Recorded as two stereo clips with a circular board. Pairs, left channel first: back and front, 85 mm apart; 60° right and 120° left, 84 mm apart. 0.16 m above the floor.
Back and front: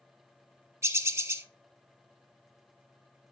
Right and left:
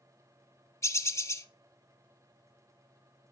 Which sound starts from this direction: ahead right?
A bird, at 0.8 s.